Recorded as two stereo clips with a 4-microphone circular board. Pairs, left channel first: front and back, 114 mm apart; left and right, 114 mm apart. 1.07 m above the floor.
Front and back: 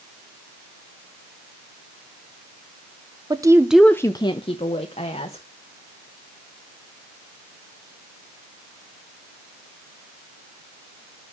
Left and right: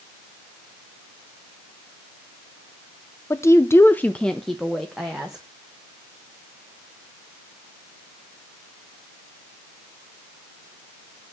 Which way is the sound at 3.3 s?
145° left.